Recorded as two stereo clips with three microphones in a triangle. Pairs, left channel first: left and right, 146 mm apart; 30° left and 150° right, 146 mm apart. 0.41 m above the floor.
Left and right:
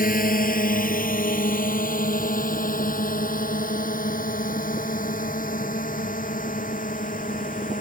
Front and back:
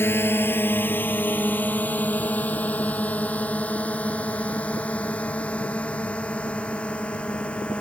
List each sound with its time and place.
0.0 s a drone: 105° left; by 7.8 s 110° left